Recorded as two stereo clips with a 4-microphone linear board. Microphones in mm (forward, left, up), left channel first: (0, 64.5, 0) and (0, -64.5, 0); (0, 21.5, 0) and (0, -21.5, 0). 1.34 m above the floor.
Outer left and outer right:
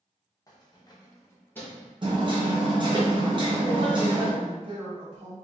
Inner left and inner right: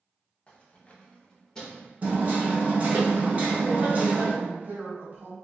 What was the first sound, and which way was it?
Keys jangling, 25° left (ahead or behind).